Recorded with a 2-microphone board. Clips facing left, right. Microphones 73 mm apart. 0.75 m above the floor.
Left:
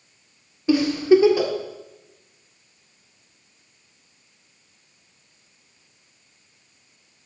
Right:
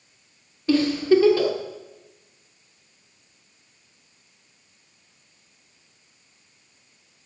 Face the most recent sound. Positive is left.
turn(degrees=15)  # may be behind; listen again after turning